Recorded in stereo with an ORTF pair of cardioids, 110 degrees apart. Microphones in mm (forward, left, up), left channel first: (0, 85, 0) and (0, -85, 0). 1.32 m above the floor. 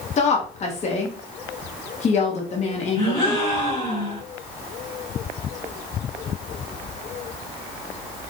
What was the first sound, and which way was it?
A woman speaking, 40° left.